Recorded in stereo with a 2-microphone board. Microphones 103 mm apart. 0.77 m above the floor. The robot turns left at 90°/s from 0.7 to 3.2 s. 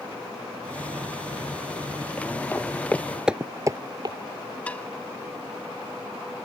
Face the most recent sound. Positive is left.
turn(degrees=15)  # may be behind; listen again after turning